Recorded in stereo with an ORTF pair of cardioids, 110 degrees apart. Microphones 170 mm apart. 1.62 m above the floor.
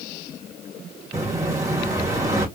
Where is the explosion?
20° right, 1.6 m.